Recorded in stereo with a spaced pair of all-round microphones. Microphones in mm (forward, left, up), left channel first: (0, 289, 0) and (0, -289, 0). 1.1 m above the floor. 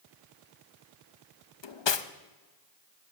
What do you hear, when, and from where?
1.6 s cutlery clinking: 50° left (ahead or behind), 0.5 m